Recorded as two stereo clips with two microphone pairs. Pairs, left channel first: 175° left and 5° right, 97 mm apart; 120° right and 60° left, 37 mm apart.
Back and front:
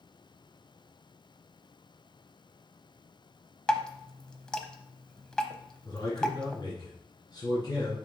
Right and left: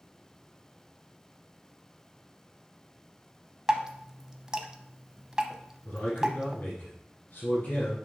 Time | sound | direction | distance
3.7 | dripping | 105° left | 0.7 m
5.8 | a man speaking | 145° right | 2.5 m